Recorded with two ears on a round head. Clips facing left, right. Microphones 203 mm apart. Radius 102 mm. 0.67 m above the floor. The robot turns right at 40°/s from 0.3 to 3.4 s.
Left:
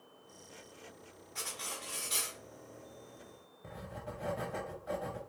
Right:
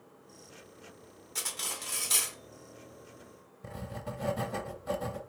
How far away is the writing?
About 0.6 m.